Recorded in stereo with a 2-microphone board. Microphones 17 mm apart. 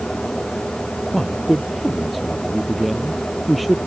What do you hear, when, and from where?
1.1 s a man speaking: 5° right (ahead or behind)